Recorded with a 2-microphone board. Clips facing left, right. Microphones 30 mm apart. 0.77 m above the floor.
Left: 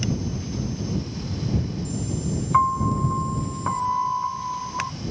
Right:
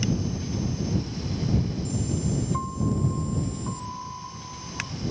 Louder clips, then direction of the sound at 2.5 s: Left 9 dB; 70° left (ahead or behind).